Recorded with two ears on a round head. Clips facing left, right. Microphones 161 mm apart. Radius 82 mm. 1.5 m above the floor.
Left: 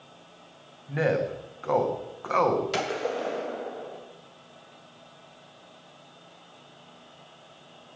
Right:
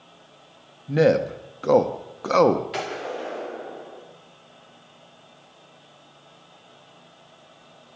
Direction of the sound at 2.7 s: 50° left (ahead or behind).